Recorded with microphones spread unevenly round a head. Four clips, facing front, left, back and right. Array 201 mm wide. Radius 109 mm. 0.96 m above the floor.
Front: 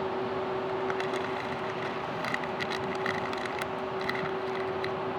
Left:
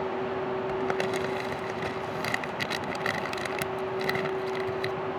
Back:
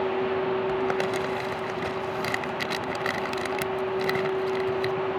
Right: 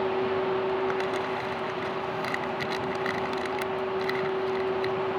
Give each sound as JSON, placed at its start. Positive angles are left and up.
{"t": 0.7, "sound": "crumpling", "azimuth_deg": 140}